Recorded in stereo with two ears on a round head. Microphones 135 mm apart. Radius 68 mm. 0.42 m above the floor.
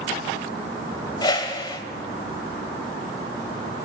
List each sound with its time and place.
1.2 s a whoosh: 30° left (ahead or behind), 1.5 m